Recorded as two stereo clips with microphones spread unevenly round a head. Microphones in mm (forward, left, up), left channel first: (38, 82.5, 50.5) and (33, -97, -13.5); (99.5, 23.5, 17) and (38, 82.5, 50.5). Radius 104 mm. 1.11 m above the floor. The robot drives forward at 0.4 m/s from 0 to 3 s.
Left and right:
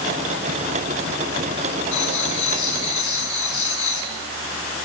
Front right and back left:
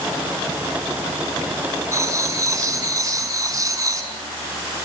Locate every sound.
1.9 s writing: 90° left, 5 m; by 4.1 s 95° left, 5 m